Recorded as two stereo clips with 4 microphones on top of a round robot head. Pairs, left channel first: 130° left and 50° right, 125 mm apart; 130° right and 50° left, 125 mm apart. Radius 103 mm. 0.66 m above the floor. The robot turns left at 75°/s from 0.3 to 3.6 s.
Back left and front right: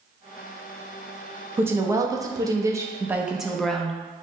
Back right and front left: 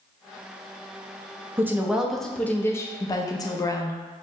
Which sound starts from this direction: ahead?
A woman speaking, at 1.6 s.